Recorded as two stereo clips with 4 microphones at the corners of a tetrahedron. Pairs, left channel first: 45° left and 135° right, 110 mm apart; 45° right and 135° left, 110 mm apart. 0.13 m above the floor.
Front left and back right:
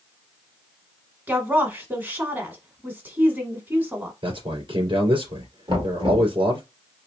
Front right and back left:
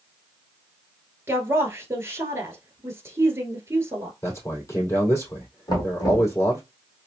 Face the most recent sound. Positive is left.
turn(degrees=-95)